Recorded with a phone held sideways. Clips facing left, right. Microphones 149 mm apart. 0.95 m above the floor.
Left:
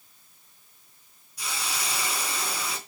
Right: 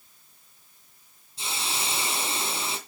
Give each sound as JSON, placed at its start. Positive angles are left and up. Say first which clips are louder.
{"t": 1.4, "sound": "a hiss", "louder": "right 1 dB", "side_deg": -25, "distance_m": 3.0}